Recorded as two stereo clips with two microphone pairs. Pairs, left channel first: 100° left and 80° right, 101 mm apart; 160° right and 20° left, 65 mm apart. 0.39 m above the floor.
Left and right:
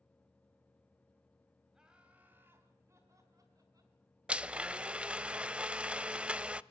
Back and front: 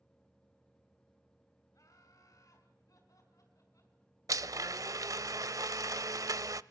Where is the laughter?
165° right, 2.5 m; by 4.0 s 130° right, 4.5 m.